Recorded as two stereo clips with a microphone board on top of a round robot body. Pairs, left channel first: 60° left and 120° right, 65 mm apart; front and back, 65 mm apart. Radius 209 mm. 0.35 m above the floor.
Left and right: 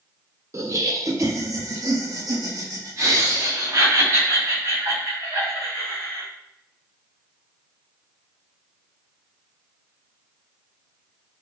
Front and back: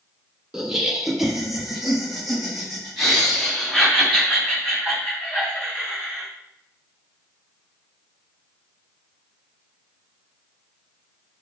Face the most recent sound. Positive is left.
turn(degrees=-90)